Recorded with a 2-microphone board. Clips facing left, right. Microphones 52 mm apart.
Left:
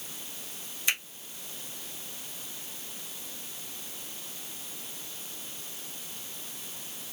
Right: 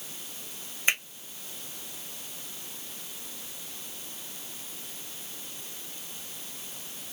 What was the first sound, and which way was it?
A finger snap, 35° right (ahead or behind).